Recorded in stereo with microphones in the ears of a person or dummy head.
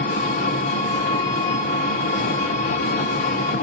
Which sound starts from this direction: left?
An engine running, at 0.0 s.